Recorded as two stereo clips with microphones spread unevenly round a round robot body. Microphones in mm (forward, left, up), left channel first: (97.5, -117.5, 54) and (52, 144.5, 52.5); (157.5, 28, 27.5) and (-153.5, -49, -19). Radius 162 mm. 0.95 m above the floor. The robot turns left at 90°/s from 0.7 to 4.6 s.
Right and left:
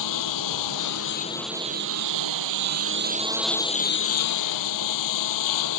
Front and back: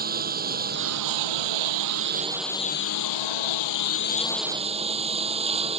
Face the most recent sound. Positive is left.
turn(degrees=-90)